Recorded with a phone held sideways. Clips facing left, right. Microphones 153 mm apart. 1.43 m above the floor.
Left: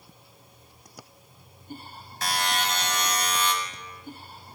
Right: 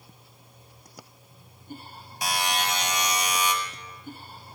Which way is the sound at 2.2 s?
15° right (ahead or behind).